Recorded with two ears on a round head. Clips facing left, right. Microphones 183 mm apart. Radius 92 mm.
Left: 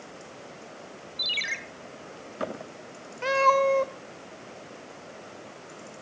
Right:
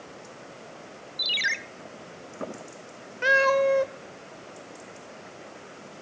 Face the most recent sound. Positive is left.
turn(degrees=-15)  # may be behind; listen again after turning